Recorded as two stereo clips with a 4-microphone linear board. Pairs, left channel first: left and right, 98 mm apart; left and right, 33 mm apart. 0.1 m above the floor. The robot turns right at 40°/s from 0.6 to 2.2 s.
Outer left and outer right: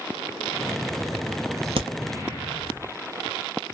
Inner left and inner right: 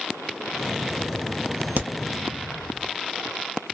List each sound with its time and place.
1.8 s a crack: 60° right (ahead or behind), 0.7 m